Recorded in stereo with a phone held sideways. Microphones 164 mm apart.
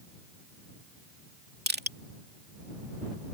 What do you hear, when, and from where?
1.7 s crushing: 75° right (ahead or behind)